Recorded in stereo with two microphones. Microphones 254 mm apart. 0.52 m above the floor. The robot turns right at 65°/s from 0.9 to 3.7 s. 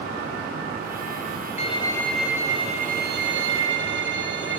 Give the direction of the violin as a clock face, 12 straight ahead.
7 o'clock.